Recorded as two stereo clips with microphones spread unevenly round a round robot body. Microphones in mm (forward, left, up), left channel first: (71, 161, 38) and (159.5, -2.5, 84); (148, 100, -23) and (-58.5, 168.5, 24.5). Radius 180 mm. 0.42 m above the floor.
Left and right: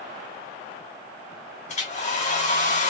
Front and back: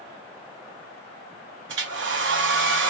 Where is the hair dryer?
135° left, 1.2 m.